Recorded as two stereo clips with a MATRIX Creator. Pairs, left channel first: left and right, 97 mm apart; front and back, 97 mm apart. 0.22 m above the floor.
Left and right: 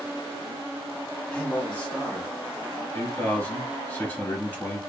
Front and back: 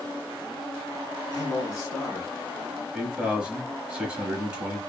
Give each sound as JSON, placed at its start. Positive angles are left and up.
{"t": 1.3, "sound": "a man speaking", "azimuth_deg": 20, "distance_m": 1.4}
{"t": 2.9, "sound": "a man speaking", "azimuth_deg": 125, "distance_m": 1.0}